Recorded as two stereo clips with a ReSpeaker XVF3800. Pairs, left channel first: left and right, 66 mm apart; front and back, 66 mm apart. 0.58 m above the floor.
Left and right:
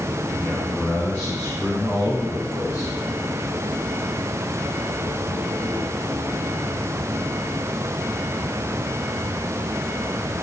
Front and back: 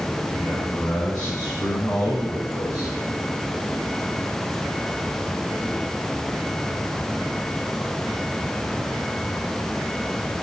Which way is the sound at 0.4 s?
30° left.